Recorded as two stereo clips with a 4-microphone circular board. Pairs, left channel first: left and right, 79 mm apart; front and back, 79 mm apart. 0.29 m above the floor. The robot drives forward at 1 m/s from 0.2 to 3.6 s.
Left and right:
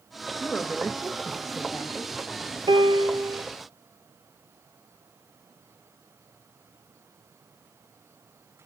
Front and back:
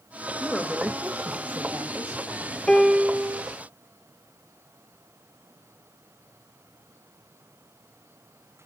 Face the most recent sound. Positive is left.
turn(degrees=-130)